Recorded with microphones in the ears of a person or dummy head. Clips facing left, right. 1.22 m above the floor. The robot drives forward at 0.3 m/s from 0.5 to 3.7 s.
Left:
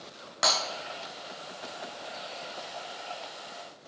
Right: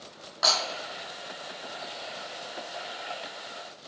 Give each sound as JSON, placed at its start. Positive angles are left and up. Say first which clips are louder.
{"t": 0.4, "sound": "breaking glass", "louder": "even", "side_deg": 45, "distance_m": 3.0}